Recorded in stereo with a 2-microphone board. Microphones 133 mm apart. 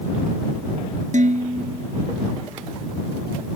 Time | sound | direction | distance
1.1 | dishes clattering | 70° right (ahead or behind) | ?